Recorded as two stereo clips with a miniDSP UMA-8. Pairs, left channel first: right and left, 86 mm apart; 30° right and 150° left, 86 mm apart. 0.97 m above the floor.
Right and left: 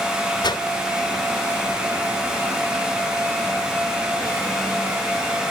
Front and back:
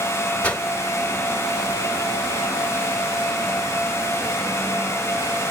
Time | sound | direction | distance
0.4 | a whoosh | 100° right | 1.4 m